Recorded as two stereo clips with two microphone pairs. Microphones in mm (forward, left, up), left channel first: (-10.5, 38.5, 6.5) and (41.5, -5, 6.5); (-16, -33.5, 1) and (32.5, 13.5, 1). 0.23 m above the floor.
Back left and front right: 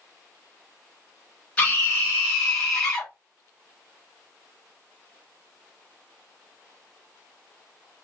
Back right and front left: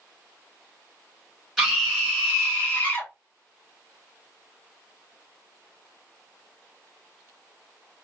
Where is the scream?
130° left, 1.6 m; by 3.1 s 135° right, 1.7 m.